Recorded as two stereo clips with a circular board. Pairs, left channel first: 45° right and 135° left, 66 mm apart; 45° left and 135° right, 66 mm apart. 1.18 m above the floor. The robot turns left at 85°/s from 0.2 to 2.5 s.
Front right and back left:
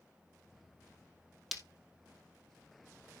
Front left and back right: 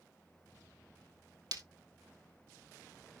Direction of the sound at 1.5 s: 135° right.